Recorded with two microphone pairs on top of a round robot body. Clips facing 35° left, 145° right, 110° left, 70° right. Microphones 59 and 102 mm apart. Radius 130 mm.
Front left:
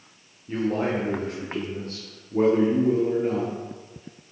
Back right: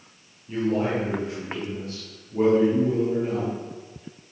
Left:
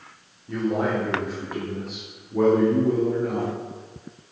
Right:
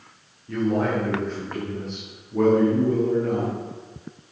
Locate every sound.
0.5 s a man speaking: 30° left, 1.6 m